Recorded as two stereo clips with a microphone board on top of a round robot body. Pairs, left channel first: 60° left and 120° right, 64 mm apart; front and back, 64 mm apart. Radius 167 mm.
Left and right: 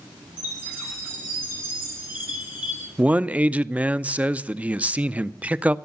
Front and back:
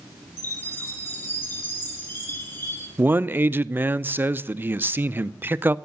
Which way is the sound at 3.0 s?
165° right.